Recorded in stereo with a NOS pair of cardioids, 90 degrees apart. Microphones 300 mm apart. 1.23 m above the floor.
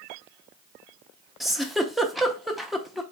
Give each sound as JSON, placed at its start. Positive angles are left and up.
{"t": 1.4, "sound": "a giggle", "azimuth_deg": 0, "distance_m": 0.8}